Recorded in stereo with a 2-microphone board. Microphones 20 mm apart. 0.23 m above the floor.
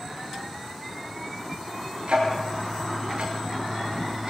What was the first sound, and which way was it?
Ticking, 70° right (ahead or behind).